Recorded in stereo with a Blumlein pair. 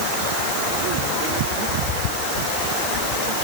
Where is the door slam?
No door slam in this recording.